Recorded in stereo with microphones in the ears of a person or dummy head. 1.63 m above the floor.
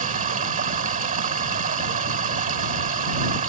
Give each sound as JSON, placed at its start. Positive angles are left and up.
{"t": 0.0, "sound": "running water", "side_deg": -40}